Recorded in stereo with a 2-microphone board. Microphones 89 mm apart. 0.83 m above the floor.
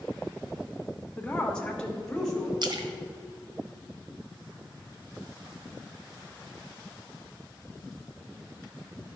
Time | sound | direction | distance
1.2 | a woman speaking | 15° left (ahead or behind) | 1.2 m
2.6 | a splash | 55° right (ahead or behind) | 1.0 m